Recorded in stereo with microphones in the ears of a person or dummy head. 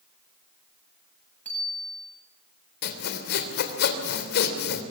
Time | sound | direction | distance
1.4 | a bicycle bell | 5° left (ahead or behind) | 8.5 m
2.8 | sawing | 60° left (ahead or behind) | 3 m